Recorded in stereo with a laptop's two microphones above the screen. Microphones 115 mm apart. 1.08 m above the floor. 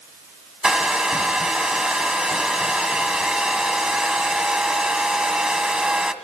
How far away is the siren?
I don't hear a siren.